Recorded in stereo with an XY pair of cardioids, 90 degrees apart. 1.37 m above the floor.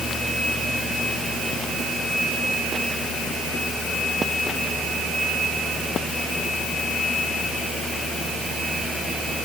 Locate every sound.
Only background noise.